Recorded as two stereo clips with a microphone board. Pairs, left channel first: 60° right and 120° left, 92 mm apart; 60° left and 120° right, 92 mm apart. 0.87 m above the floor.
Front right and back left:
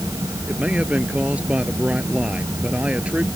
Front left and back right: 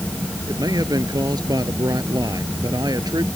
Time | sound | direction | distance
0.5 | a man speaking | 165° right | ?